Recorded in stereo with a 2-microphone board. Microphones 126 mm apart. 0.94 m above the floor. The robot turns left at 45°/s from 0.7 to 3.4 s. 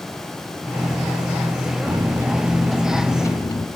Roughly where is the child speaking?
I don't hear a child speaking.